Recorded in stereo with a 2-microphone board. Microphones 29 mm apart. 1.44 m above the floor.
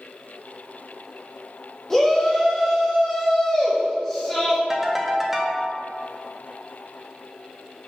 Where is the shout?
15° left (ahead or behind), 1.8 m.